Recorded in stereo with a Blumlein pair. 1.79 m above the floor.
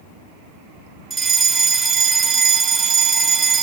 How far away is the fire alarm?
About 3.5 m.